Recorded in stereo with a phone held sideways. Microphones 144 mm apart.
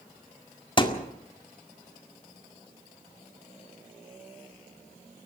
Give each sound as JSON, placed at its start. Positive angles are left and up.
{"t": 0.8, "sound": "a thud", "side_deg": 35, "distance_m": 1.9}